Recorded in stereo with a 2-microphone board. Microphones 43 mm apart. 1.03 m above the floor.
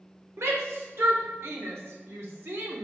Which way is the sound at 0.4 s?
85° right.